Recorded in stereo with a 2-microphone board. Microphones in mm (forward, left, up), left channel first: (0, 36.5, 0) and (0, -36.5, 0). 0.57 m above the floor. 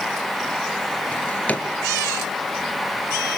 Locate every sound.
1.1 s a drawer: 20° left (ahead or behind), 2.5 m